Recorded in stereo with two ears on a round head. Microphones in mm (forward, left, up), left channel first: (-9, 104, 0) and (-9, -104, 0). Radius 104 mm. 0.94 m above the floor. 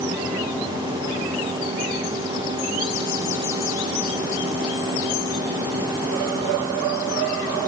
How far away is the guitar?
No guitar in this recording.